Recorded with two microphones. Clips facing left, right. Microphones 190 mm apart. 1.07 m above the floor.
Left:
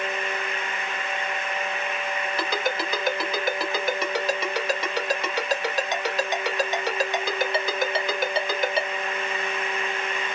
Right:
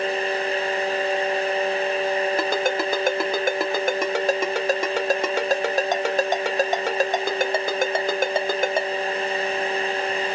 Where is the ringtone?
50° right (ahead or behind), 0.7 m.